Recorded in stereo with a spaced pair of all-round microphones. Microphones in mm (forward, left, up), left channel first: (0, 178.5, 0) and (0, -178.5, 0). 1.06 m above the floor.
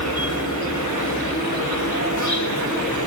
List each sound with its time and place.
0.0 s an insect: 55° left (ahead or behind), 6 m